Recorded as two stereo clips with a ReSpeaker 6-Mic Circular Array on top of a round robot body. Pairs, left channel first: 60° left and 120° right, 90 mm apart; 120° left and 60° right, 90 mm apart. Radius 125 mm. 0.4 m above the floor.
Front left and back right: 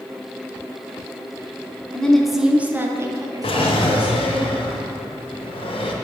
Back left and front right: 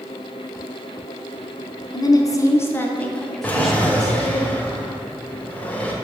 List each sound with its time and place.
1.9 s a woman speaking: 135° left, 1.0 m; by 4.4 s 140° right, 1.7 m
3.4 s a drawer: 45° left, 0.9 m